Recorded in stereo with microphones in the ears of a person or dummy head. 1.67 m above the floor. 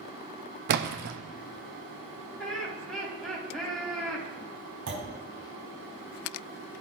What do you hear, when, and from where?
0.7 s a splash: 55° right (ahead or behind), 0.7 m
2.4 s laughter: centre (ahead or behind), 3.5 m
4.9 s a clunk: 70° right (ahead or behind), 2.5 m